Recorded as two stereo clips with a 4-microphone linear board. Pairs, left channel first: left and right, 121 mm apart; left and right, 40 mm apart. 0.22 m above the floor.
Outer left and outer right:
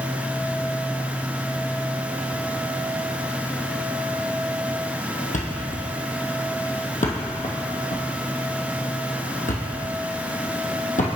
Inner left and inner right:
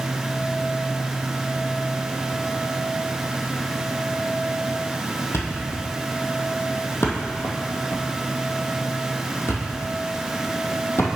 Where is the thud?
85° left, 1.1 m.